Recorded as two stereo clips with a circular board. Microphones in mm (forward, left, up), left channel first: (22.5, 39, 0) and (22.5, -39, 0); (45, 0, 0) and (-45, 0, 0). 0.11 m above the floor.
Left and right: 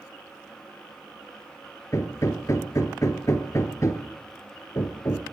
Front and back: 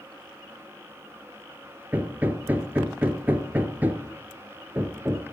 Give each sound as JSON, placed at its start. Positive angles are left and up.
{"t": 1.9, "sound": "hammering", "azimuth_deg": 115, "distance_m": 1.2}